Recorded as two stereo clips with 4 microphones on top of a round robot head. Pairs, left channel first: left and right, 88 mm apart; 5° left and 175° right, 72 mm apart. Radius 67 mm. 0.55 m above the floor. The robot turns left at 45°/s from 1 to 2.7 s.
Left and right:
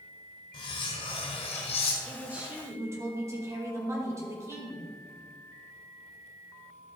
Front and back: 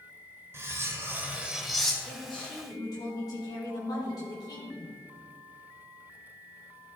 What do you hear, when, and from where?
0.5 s cutlery clinking: 130° left, 1.4 m; by 1.9 s 90° left, 1.4 m
2.0 s a man speaking: 5° right, 1.8 m; by 4.9 s 35° right, 1.8 m